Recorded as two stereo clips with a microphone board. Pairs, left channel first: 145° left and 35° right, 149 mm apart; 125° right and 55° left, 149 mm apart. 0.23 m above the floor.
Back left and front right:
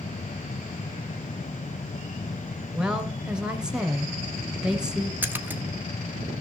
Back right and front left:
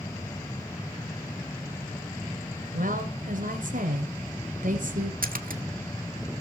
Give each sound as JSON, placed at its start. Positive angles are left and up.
{"t": 2.7, "sound": "a woman speaking", "azimuth_deg": 50, "distance_m": 2.0}
{"t": 5.2, "sound": "a splash", "azimuth_deg": 45, "distance_m": 1.1}